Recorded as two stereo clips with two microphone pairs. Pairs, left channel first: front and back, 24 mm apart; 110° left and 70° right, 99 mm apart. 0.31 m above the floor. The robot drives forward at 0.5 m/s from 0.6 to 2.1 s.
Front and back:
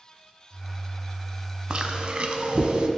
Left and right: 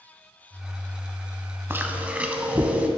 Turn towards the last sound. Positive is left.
turn(degrees=-145)